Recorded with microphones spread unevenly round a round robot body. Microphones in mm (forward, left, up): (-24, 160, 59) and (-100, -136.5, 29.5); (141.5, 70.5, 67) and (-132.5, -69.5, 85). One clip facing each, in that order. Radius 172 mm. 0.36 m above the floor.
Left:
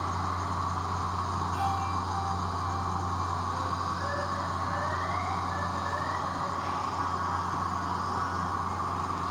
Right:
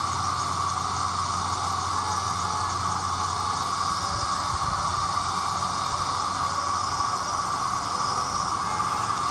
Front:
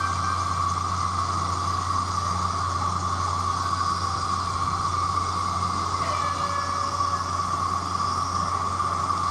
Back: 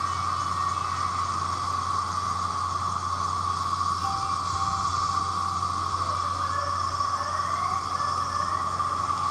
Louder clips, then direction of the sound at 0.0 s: Right 1 dB, front 3 dB; 60° right.